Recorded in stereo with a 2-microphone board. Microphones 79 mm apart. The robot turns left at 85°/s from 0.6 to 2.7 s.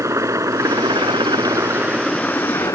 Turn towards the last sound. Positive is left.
turn(degrees=50)  # may be behind; listen again after turning